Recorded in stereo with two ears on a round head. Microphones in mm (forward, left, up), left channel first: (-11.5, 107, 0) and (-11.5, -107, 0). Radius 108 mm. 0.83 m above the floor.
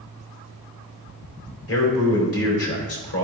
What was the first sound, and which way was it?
A man speaking, 65° left (ahead or behind).